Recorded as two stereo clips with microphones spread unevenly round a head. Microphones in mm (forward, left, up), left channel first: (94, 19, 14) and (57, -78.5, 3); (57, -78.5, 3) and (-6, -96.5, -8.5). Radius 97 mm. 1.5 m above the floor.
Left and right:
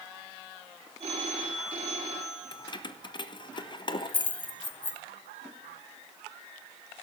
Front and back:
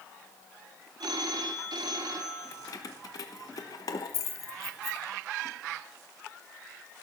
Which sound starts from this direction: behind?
A phone ringing, at 1.0 s.